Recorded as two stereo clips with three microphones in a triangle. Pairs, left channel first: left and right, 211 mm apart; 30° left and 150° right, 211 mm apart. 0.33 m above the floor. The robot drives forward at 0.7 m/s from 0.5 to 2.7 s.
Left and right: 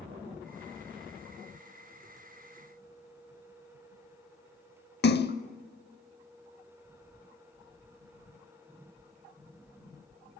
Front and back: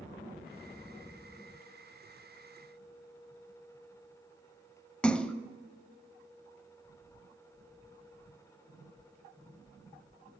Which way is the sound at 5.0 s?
115° left.